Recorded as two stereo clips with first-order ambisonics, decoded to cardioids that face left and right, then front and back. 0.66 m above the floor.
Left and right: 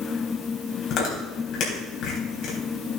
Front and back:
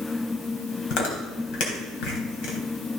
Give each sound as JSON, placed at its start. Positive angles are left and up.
{"t": 0.9, "sound": "chewing", "azimuth_deg": 40, "distance_m": 3.5}